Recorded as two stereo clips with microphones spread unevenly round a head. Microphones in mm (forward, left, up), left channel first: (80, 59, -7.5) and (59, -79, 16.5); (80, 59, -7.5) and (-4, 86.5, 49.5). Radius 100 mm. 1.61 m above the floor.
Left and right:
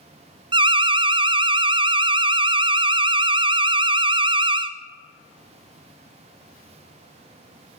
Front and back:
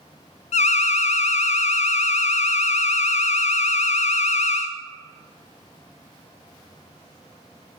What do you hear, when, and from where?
0.5 s an alarm: 45° right, 0.5 m